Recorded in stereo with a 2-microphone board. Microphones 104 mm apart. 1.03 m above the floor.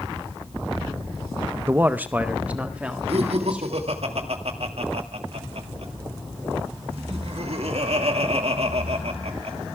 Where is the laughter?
70° right (ahead or behind), 2.0 m.